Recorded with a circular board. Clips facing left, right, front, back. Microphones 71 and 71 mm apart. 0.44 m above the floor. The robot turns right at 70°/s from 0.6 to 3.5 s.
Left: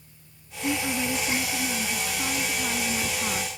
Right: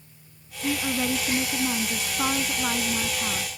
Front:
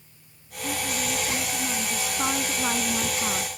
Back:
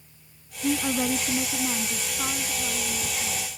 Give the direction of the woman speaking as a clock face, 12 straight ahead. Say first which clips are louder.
Right 1 dB, back 5 dB; 6 o'clock.